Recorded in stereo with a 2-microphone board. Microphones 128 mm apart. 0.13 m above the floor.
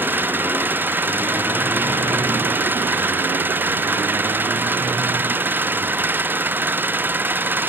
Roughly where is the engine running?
Centre.